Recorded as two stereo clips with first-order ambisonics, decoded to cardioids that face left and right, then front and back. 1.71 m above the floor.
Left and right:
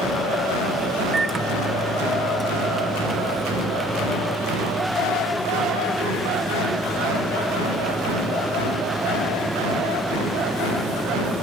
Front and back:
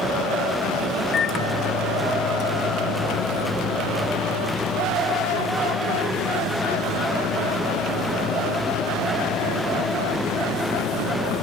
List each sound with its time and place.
1.1 s a microwave: 35° right, 0.7 m